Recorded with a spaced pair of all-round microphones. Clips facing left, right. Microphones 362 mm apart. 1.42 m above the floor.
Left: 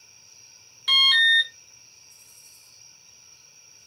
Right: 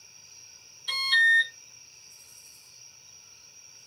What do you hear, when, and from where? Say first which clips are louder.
0.9 s an alarm: left 2 dB; 80° left, 0.7 m